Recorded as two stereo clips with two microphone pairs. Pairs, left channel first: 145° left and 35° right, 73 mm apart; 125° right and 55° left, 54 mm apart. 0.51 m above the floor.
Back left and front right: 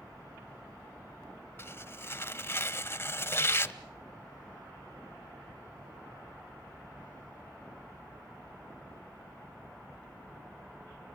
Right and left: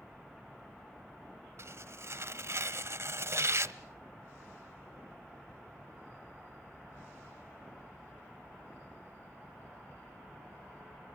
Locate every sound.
1.6 s tearing paper: 85° left, 0.8 m